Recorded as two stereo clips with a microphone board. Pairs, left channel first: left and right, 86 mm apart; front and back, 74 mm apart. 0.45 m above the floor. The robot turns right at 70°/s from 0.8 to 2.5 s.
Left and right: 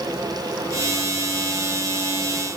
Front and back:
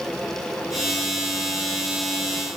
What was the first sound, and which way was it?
Only background noise.